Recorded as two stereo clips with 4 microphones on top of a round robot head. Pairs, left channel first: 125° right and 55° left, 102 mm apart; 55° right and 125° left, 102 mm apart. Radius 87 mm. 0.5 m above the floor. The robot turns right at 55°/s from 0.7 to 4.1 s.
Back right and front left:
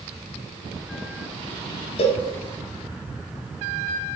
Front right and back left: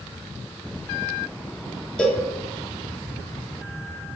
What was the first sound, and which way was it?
A cowbell, 135° right.